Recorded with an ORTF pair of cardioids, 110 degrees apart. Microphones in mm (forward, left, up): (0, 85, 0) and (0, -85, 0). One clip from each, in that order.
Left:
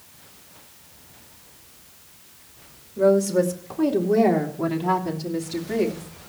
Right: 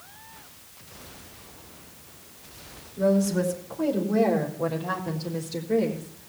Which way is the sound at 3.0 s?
50° left.